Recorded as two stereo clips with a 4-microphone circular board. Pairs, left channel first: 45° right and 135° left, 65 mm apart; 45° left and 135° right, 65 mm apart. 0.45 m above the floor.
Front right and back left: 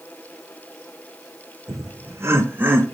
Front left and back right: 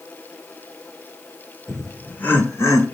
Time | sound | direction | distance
1.7 | laughter | 140° left | 1.4 m